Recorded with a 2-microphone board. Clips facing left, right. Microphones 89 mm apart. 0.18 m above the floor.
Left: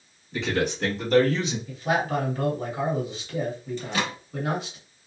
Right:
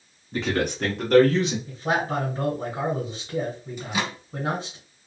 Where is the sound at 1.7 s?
30° right (ahead or behind), 1.4 m.